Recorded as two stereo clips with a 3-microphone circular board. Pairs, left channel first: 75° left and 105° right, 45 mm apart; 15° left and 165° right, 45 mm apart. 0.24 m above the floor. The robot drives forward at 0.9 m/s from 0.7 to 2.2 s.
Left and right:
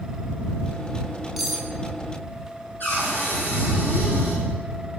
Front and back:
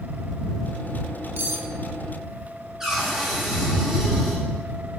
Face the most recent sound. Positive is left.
turn(degrees=115)